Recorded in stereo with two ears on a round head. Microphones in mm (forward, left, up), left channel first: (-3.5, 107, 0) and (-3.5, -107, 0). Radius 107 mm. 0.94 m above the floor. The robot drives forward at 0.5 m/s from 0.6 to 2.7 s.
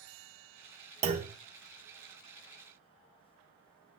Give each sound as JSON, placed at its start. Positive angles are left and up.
{"t": 1.0, "sound": "a clunk", "side_deg": -25, "distance_m": 0.8}